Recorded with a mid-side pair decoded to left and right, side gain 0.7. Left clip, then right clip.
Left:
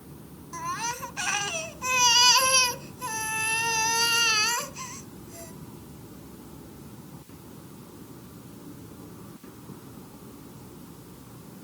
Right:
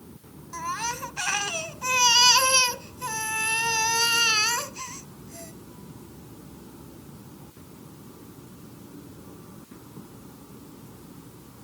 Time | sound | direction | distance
0.5 | a baby crying | 10° right | ?